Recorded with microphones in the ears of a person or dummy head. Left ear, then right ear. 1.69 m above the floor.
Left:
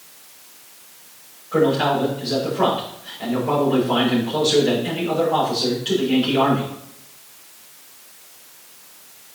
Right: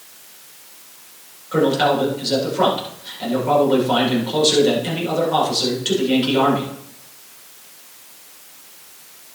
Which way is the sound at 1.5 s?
40° right (ahead or behind).